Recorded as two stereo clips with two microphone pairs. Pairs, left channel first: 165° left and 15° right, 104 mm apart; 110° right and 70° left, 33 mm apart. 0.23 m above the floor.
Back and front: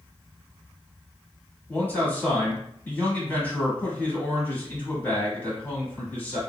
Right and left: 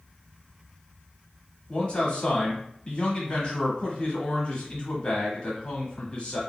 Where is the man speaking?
135° right, 1.3 m.